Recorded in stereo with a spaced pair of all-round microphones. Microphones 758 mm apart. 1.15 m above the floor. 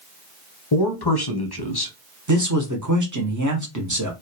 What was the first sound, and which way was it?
A man speaking, 35° left (ahead or behind).